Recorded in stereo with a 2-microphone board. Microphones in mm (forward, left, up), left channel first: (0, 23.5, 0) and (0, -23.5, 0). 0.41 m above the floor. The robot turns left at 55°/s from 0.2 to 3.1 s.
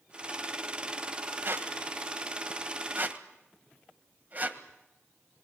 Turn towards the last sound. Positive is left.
turn(degrees=-40)  # may be behind; listen again after turning